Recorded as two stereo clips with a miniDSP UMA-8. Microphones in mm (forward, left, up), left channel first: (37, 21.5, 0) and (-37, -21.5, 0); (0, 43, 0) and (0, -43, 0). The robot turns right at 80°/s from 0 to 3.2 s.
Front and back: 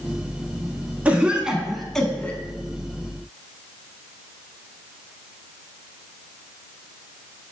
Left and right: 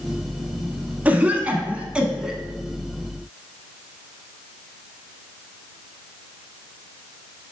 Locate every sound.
1.1 s a cough: 115° right, 1.1 m; by 2.4 s 10° right, 1.1 m